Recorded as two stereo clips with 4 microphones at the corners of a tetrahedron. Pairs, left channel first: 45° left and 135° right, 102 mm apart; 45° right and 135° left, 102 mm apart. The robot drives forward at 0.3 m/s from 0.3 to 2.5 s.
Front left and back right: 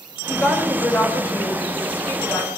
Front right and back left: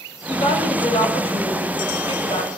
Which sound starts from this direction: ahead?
A woman speaking, at 0.3 s.